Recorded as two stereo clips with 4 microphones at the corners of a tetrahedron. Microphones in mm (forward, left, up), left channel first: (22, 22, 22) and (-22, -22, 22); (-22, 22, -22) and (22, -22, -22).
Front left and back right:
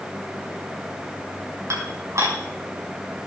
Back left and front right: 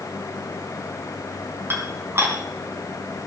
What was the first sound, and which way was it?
Dishes clattering, 95° right.